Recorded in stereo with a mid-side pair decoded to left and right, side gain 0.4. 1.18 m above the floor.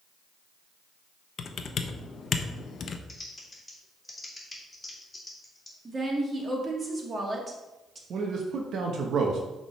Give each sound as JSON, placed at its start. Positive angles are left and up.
{"t": 1.4, "sound": "typing on a keyboard", "azimuth_deg": 55, "distance_m": 0.7}
{"t": 3.1, "sound": "typing on a keyboard", "azimuth_deg": 15, "distance_m": 3.0}
{"t": 5.8, "sound": "a woman speaking", "azimuth_deg": -35, "distance_m": 2.0}
{"t": 8.1, "sound": "a man speaking", "azimuth_deg": -70, "distance_m": 1.0}